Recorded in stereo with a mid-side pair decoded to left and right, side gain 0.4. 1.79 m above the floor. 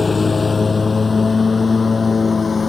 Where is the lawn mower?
35° left; by 2.7 s 40° left.